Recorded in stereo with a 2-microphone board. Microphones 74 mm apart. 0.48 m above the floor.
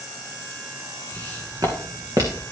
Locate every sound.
1.1 s footsteps: 55° right (ahead or behind), 2.5 m; by 2.5 s 50° right (ahead or behind), 1.5 m